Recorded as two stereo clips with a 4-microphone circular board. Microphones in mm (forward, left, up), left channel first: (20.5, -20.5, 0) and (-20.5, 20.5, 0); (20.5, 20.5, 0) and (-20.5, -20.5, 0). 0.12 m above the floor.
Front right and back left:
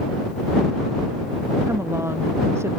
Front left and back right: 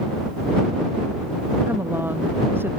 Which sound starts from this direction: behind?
A woman speaking, at 1.7 s.